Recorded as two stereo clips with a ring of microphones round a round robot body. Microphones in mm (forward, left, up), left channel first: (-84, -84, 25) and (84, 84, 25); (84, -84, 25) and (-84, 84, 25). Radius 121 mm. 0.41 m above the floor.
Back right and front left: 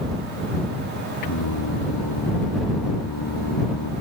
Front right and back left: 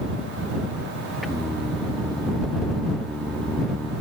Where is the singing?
135° right.